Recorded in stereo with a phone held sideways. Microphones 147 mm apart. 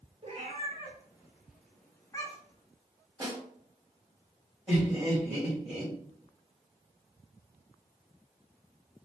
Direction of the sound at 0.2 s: 45° right (ahead or behind).